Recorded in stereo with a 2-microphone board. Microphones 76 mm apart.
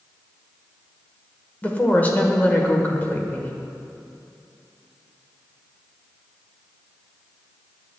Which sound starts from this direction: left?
A woman speaking, at 1.6 s.